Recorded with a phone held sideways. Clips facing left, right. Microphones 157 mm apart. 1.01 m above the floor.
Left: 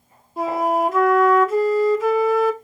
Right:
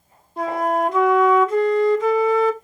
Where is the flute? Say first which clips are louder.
Left 1 dB; 5° left (ahead or behind), 0.9 m.